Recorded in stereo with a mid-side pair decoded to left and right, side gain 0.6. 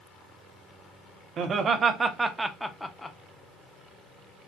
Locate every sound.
1.4 s laughter: 45° right, 0.9 m; by 3.2 s 20° left, 0.7 m